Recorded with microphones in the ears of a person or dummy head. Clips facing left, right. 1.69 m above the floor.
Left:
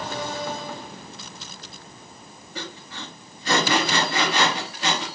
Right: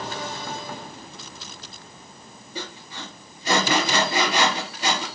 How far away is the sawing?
About 2.5 m.